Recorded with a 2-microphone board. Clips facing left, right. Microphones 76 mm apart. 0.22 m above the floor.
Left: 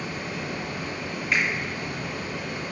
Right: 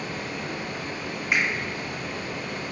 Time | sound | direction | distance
0.0 | running water | 20° left (ahead or behind) | 0.8 m
1.3 | a finger snap | 20° right (ahead or behind) | 1.8 m